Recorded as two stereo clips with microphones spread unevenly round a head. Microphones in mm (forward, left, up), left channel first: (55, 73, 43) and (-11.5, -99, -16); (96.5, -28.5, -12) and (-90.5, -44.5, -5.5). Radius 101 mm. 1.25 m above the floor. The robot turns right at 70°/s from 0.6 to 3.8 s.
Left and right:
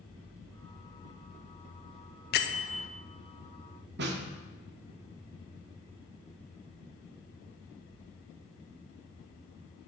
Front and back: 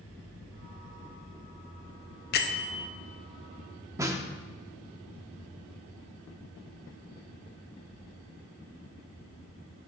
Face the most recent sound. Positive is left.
turn(degrees=-115)